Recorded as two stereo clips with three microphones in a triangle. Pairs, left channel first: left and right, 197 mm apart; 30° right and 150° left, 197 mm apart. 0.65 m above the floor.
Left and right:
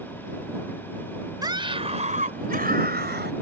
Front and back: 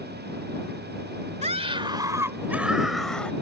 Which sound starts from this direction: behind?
A scream, at 1.4 s.